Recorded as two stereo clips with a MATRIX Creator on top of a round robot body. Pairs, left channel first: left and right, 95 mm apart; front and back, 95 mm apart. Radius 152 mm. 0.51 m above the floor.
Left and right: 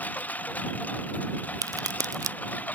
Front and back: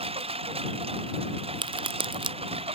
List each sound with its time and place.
0.0 s a lawn mower: 165° left
1.6 s a crack: 145° right